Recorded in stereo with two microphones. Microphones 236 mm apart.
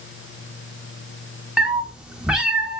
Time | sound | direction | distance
1.6 | a cat meowing | 5° right (ahead or behind) | 0.8 m